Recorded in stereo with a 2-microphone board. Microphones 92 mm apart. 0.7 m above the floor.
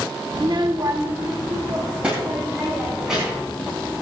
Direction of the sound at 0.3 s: 70° right (ahead or behind).